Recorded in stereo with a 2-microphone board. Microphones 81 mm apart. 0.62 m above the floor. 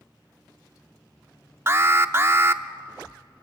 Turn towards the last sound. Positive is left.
turn(degrees=-30)  # may be behind; listen again after turning